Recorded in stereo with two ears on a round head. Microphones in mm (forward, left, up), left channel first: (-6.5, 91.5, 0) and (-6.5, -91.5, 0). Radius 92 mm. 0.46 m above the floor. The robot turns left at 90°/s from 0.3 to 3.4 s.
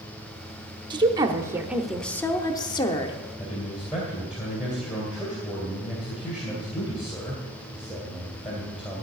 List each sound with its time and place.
0.9 s a woman speaking: 20° right (ahead or behind), 0.8 m; by 3.2 s 20° left (ahead or behind), 0.8 m
3.4 s a man speaking: 5° right (ahead or behind), 2.5 m